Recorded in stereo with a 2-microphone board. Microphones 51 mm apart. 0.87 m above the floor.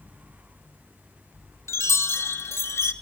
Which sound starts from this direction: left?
A chime, at 1.7 s.